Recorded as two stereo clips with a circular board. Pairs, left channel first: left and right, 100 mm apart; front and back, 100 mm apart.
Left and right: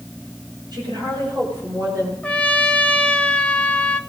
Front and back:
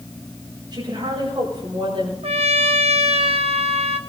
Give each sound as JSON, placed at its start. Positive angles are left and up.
{"t": 0.7, "sound": "a woman speaking", "azimuth_deg": -130, "distance_m": 7.5}
{"t": 2.2, "sound": "a trumpet", "azimuth_deg": 170, "distance_m": 0.8}